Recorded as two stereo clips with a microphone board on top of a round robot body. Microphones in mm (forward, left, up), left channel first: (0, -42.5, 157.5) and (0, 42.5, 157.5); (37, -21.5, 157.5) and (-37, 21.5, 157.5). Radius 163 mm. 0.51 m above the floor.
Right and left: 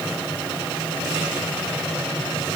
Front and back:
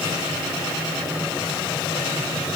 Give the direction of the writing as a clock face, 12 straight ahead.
No writing in this recording.